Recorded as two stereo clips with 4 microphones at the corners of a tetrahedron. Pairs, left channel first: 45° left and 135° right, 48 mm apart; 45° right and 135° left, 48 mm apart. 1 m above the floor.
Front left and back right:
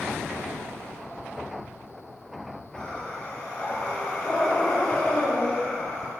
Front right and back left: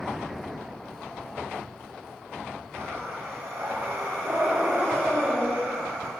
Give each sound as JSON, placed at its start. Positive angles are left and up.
{"t": 2.8, "sound": "breathing", "azimuth_deg": 120, "distance_m": 3.0}